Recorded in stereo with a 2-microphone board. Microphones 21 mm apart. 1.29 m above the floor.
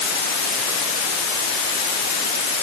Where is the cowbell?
No cowbell in this recording.